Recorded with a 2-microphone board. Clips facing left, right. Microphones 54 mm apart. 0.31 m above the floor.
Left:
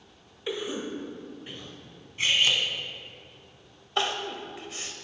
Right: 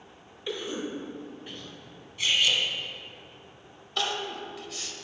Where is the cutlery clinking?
35° left (ahead or behind), 1.3 m.